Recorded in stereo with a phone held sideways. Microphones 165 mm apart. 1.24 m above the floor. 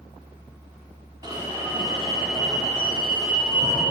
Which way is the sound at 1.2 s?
25° right (ahead or behind).